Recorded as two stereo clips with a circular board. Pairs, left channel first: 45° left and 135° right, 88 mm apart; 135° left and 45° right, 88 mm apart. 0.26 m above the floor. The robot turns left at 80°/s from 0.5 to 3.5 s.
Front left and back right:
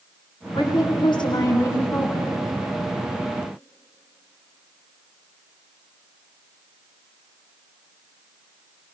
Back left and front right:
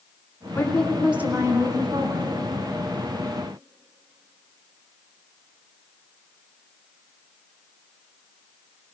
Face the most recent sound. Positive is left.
turn(degrees=-160)